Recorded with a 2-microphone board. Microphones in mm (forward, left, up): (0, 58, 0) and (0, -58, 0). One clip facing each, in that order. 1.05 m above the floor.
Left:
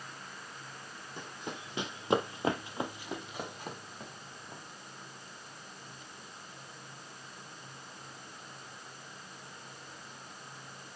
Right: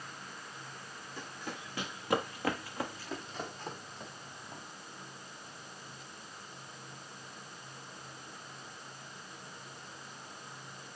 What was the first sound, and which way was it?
Running footsteps, 20° left (ahead or behind).